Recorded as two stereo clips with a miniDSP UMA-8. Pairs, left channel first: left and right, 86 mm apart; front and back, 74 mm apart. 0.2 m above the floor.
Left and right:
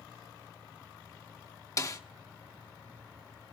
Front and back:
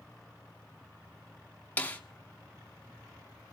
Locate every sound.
1.8 s a snare drum: 60° left, 1.2 m